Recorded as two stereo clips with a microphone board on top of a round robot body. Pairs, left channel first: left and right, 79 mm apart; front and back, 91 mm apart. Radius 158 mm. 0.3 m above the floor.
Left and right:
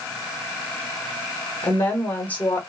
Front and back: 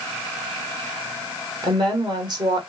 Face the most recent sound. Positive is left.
turn(degrees=155)